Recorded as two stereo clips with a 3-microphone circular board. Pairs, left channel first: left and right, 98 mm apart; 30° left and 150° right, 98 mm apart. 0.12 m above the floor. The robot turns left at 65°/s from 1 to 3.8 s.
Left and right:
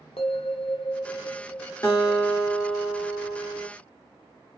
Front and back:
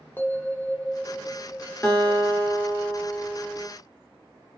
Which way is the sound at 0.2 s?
95° left.